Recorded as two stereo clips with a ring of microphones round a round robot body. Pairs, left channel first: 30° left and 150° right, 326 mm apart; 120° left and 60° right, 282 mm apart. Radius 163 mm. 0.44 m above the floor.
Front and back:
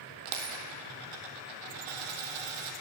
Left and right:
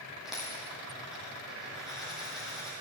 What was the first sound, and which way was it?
A dropped coin, 150° right.